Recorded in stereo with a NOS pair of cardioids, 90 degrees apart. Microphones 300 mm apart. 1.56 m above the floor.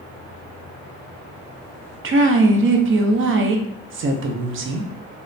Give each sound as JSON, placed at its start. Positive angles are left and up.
{"t": 2.0, "sound": "a woman speaking", "azimuth_deg": -45, "distance_m": 0.6}